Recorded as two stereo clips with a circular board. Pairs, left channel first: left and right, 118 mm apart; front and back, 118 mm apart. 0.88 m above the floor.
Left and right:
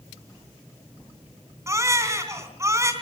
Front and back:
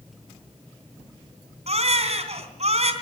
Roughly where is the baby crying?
Behind right.